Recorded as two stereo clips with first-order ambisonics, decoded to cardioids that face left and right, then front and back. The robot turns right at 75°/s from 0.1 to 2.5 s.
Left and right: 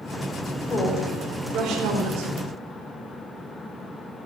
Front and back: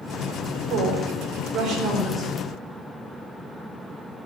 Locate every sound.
0.7 s a woman speaking: 160° left, 4 m; by 2.3 s 80° right, 4 m